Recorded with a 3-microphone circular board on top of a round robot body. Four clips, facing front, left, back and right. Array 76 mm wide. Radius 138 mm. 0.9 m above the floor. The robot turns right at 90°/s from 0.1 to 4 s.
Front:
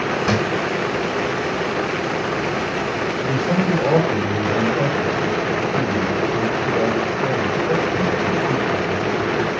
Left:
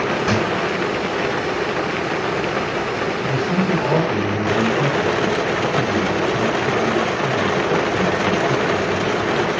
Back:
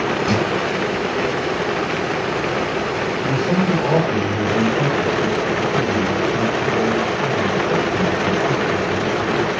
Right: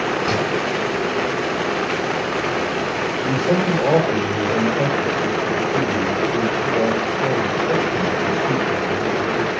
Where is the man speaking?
135° right, 3.5 m; by 9.5 s 60° right, 3.5 m.